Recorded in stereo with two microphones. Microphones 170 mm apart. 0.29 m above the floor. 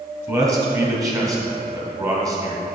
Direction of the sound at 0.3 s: 20° right (ahead or behind).